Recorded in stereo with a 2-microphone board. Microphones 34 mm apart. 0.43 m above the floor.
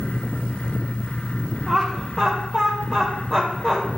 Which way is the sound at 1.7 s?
15° left (ahead or behind).